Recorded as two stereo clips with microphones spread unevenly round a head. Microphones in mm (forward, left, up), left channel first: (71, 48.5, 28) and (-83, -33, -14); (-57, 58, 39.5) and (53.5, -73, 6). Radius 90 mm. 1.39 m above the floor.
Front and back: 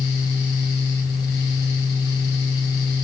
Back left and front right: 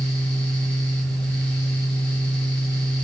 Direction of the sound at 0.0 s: 50° left.